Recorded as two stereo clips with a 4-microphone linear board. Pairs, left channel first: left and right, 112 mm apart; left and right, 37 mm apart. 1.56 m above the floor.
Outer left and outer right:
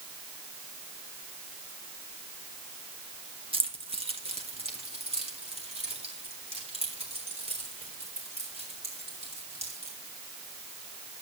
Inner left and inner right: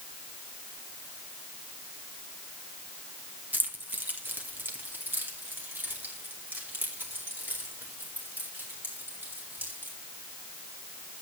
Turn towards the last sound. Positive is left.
turn(degrees=-70)  # may be behind; listen again after turning